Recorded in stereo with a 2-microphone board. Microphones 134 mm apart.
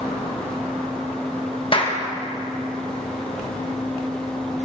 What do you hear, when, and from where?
1.7 s a clap: 40° left (ahead or behind), 1.5 m